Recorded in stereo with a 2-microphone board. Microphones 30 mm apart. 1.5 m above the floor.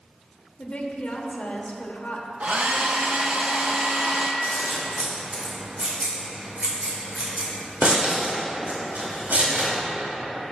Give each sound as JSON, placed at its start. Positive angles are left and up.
{"t": 0.6, "sound": "a woman speaking", "side_deg": 55, "distance_m": 1.2}
{"t": 2.4, "sound": "a hair dryer", "side_deg": -55, "distance_m": 1.0}
{"t": 4.4, "sound": "scissors", "side_deg": -70, "distance_m": 2.5}